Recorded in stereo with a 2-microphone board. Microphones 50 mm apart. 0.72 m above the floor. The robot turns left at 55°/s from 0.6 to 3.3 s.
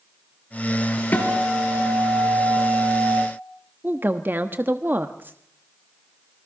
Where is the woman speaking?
45° right (ahead or behind), 1.1 m.